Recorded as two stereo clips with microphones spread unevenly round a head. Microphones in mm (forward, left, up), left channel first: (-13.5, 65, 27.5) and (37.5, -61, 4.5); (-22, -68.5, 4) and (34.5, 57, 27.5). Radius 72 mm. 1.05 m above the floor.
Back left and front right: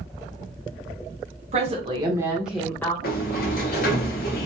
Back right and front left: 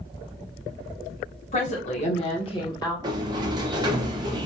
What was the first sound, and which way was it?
A woman speaking, 95° right.